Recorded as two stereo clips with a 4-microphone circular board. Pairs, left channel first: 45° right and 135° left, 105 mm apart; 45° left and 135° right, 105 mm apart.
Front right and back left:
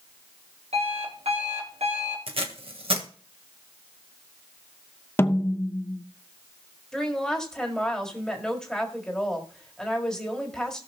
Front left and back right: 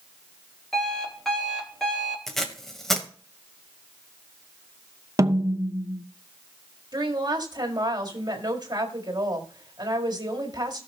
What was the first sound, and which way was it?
An alarm clock, 130° left.